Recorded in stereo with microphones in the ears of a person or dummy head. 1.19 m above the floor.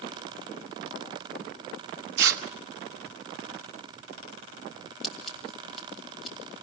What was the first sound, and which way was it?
Tearing paper, 70° right (ahead or behind).